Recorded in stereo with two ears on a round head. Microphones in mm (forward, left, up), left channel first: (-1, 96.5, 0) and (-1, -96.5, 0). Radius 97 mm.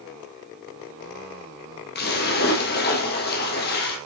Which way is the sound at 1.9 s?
45° left (ahead or behind).